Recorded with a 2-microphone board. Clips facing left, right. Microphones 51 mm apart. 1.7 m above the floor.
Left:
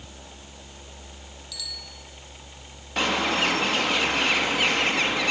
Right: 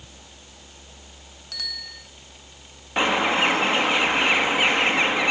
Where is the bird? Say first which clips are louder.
Right 3 dB; 25° right (ahead or behind), 3.5 m.